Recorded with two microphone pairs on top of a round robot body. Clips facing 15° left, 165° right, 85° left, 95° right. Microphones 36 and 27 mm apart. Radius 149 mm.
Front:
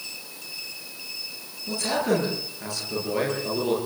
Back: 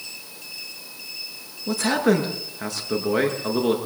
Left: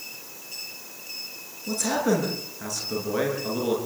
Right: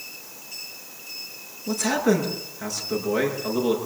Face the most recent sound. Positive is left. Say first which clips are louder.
# back 4 dB, right 2 dB
turn(degrees=-175)